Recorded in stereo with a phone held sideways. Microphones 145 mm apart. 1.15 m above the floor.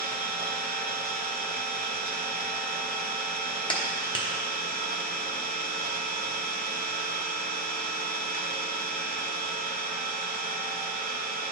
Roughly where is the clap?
Left.